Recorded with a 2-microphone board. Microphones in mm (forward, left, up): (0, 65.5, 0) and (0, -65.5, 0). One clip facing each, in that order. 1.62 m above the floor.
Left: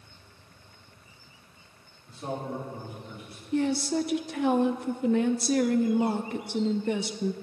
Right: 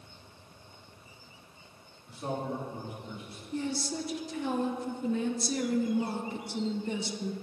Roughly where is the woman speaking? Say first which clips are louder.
Left 8 dB; left.